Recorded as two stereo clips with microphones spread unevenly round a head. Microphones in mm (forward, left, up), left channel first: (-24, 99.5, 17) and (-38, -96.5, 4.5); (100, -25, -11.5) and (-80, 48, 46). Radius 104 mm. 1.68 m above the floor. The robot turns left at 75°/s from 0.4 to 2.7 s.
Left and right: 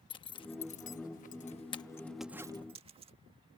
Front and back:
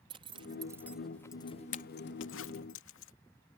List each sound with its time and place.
0.1 s a zipper: 135° left; by 3.1 s 40° right